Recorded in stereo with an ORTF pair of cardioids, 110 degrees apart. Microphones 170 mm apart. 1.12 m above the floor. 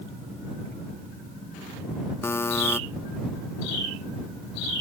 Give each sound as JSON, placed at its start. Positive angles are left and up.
{"t": 2.2, "sound": "a buzzer", "azimuth_deg": 15}